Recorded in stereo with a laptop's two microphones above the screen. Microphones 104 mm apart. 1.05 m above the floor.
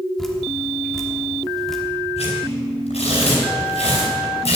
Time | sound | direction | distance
0.2 | dripping | 5° left (ahead or behind) | 1.2 m
2.2 | tearing paper | 80° left | 4.5 m